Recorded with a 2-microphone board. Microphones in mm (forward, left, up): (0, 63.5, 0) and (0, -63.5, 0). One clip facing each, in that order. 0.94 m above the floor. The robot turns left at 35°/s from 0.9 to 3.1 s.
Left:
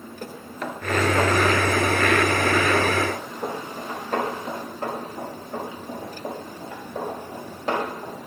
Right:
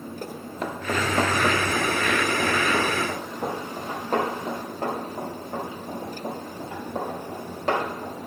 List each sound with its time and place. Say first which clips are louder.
0.2 s running footsteps: even; 15° right (ahead or behind), 0.9 m; by 8.2 s 60° right (ahead or behind), 7 m